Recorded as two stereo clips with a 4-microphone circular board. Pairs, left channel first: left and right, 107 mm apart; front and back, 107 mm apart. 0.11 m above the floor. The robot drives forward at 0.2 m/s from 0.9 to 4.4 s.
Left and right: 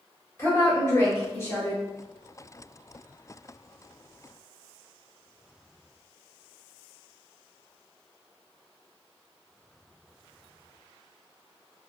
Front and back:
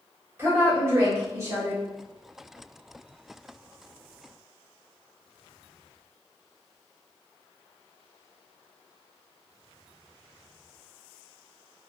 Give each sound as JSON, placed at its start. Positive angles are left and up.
{"t": 0.4, "sound": "a woman speaking", "azimuth_deg": 135, "distance_m": 1.3}